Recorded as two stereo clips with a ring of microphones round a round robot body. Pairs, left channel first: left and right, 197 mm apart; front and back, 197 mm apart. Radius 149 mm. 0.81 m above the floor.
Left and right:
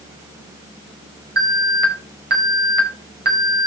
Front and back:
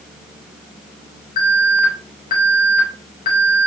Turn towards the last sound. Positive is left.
turn(degrees=-55)